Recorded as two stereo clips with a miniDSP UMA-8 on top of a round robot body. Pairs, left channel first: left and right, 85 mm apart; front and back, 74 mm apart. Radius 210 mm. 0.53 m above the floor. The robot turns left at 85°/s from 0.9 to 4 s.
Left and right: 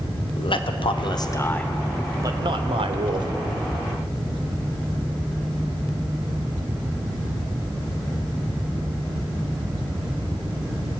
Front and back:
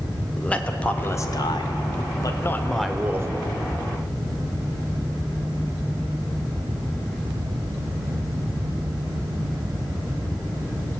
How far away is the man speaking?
About 2 m.